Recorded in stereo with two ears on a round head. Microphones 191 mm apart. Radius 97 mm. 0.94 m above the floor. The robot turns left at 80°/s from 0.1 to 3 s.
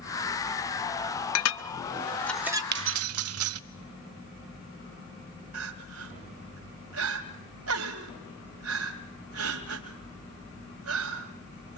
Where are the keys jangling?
50° right (ahead or behind), 0.8 m; by 3.6 s 70° right (ahead or behind), 0.8 m.